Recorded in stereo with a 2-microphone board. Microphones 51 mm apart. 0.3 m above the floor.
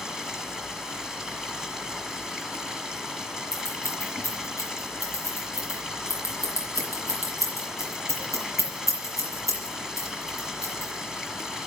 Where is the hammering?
No hammering in this recording.